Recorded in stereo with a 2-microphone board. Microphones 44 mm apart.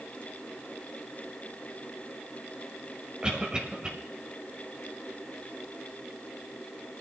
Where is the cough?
25° right (ahead or behind), 1.1 m.